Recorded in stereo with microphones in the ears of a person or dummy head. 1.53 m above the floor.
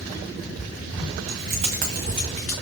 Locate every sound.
1.3 s keys jangling: 40° right (ahead or behind), 0.9 m; by 2.5 s 5° left (ahead or behind), 0.6 m